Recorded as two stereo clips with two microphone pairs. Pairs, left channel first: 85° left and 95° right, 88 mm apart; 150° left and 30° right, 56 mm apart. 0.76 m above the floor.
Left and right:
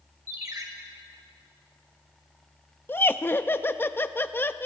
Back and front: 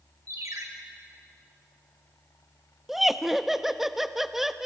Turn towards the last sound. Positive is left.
turn(degrees=50)